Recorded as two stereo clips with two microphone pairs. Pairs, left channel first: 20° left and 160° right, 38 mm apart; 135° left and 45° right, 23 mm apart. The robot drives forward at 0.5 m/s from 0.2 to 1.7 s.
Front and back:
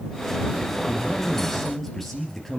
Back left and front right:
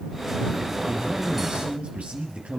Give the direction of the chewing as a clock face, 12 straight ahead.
I don't hear chewing.